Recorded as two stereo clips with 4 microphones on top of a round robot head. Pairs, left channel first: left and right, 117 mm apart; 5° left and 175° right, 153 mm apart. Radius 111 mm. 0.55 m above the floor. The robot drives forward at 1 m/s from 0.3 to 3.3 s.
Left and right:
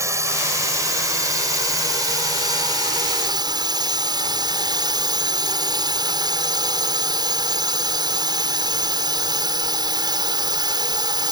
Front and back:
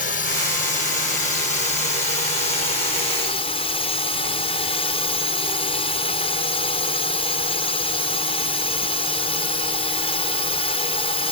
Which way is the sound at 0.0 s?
30° right.